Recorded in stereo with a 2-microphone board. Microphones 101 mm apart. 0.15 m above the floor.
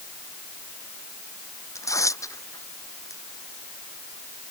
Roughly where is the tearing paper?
Left.